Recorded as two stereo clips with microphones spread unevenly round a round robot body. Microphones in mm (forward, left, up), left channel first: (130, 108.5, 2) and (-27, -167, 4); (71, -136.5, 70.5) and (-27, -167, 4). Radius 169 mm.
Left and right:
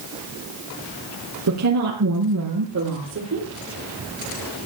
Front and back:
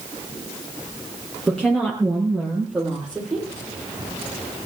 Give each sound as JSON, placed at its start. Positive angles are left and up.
{"t": 1.5, "sound": "a woman speaking", "azimuth_deg": -80, "distance_m": 6.5}